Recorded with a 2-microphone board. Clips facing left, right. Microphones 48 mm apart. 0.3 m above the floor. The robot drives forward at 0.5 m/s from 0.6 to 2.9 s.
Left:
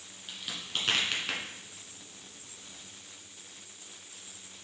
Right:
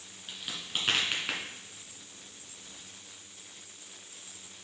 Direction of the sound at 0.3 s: 5° right (ahead or behind).